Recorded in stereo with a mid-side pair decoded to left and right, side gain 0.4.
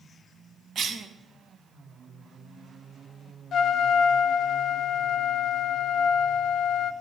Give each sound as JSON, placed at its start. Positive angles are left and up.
{"t": 0.8, "sound": "a cough", "azimuth_deg": -50, "distance_m": 2.5}
{"t": 3.5, "sound": "a trumpet", "azimuth_deg": 70, "distance_m": 0.9}